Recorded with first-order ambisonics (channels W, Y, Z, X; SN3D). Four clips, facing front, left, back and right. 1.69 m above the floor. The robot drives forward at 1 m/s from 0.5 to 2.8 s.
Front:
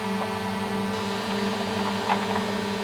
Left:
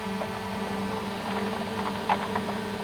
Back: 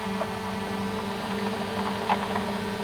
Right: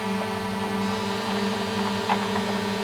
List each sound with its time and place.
0.0 s a drone: 60° right; by 2.9 s 75° right